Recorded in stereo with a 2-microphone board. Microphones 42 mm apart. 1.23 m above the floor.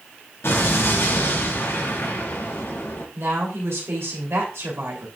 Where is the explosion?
70° left (ahead or behind), 3.5 m.